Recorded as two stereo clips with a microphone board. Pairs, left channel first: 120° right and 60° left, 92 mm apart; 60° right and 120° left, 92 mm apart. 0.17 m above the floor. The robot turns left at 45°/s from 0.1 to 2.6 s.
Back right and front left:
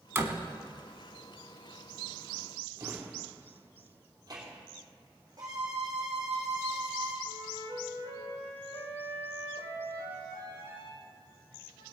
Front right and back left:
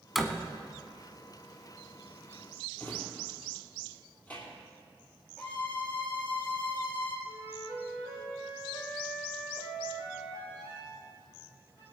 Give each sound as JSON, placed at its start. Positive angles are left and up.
{"t": 0.1, "sound": "a door slam", "azimuth_deg": 30, "distance_m": 1.0}
{"t": 2.8, "sound": "a drawer", "azimuth_deg": 10, "distance_m": 3.0}
{"t": 5.4, "sound": "a violin", "azimuth_deg": 10, "distance_m": 3.0}
{"t": 7.3, "sound": "a flute", "azimuth_deg": -115, "distance_m": 5.0}